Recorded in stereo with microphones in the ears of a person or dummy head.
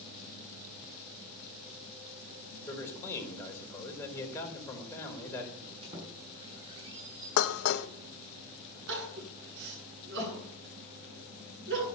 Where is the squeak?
25° right (ahead or behind), 6 m.